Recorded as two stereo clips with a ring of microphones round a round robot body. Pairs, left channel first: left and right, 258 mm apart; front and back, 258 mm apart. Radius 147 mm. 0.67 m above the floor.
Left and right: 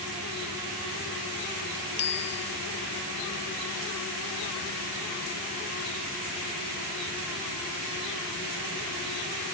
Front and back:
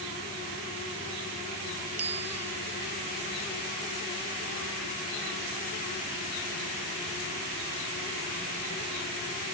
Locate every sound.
2.0 s a bicycle bell: 140° left